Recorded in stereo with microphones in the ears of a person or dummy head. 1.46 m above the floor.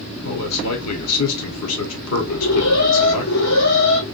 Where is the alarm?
80° left, 2.5 m.